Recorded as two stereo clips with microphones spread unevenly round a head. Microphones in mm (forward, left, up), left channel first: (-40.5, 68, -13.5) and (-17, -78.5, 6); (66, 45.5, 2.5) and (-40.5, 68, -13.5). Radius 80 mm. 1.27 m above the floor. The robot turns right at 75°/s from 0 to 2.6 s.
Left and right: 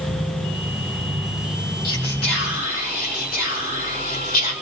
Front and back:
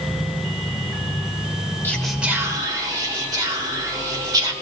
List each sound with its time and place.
1.8 s whispering: 60° left, 2 m; by 4.5 s 120° left, 2 m